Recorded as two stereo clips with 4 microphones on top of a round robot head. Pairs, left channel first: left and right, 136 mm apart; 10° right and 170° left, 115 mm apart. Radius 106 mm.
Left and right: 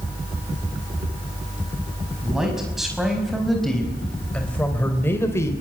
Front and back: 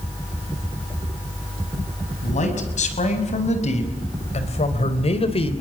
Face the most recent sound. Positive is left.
turn(degrees=20)